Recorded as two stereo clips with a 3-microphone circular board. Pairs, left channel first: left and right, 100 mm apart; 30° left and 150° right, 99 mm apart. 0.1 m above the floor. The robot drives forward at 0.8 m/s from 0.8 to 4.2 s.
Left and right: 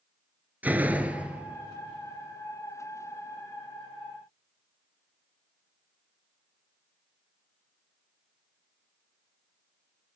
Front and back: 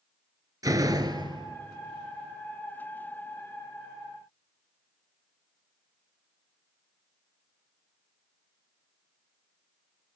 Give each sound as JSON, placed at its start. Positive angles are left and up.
{"t": 0.6, "sound": "a door slam", "azimuth_deg": -150, "distance_m": 1.1}